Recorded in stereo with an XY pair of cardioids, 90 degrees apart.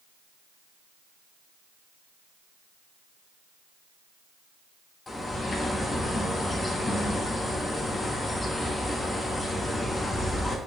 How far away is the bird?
About 1.2 m.